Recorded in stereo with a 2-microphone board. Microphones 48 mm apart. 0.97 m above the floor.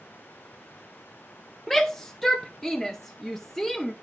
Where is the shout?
5° left (ahead or behind), 0.6 m.